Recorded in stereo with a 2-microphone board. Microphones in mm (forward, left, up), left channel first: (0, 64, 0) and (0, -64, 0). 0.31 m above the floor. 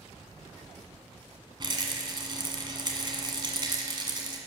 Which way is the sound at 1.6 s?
35° right (ahead or behind).